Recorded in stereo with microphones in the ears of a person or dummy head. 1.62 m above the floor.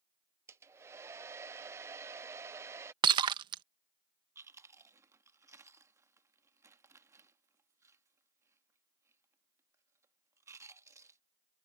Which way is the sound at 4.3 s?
20° right (ahead or behind).